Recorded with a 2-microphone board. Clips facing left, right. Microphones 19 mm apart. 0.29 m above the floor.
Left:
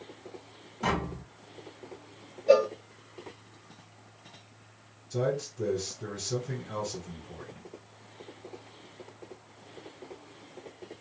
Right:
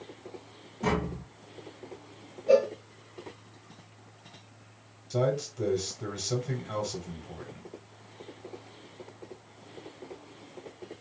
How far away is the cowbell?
About 0.7 m.